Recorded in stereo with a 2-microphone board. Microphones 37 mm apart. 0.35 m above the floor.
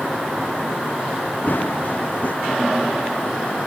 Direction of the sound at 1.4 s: 55° left (ahead or behind).